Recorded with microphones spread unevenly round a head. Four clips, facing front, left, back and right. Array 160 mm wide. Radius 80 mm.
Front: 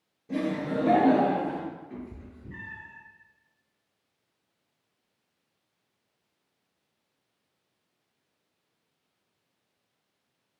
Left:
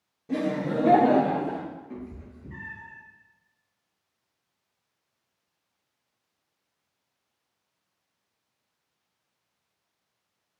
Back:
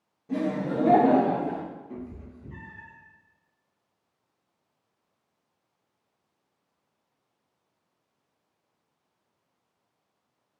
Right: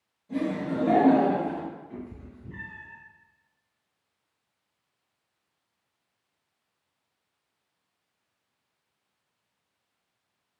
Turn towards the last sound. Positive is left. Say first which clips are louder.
# left 1 dB, back 2 dB
turn(degrees=105)